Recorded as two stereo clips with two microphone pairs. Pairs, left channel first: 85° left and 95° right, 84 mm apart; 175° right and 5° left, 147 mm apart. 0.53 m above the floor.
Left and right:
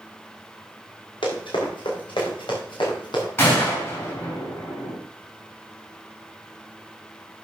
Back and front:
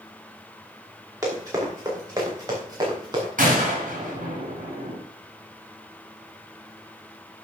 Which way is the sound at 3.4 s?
25° left.